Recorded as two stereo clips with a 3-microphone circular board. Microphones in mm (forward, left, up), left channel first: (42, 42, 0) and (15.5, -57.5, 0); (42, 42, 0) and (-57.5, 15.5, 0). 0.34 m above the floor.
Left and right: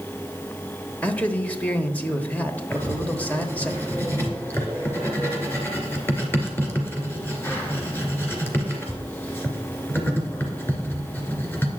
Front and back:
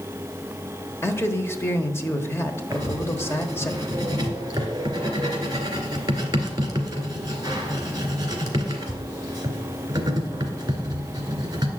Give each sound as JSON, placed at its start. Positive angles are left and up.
{"t": 1.0, "sound": "a man speaking", "azimuth_deg": 25, "distance_m": 1.0}
{"t": 2.7, "sound": "writing", "azimuth_deg": 145, "distance_m": 2.0}